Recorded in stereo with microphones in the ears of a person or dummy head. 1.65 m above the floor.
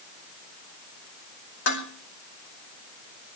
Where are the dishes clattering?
55° left (ahead or behind), 4 m.